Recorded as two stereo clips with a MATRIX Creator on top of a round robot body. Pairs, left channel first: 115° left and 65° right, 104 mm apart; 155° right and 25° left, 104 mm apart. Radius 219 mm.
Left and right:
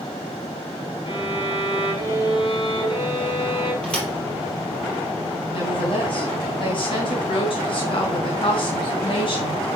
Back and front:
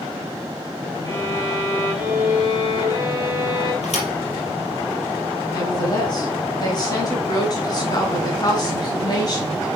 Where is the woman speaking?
150° left, 4.5 m.